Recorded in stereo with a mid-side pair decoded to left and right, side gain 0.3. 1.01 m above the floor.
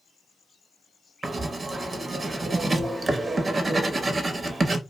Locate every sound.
1.2 s writing: 45° right, 0.7 m